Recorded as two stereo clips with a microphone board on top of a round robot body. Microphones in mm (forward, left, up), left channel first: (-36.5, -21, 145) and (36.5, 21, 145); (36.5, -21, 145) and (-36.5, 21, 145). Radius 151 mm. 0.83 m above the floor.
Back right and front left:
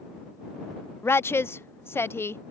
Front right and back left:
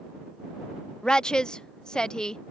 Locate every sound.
1.0 s a woman speaking: 105° right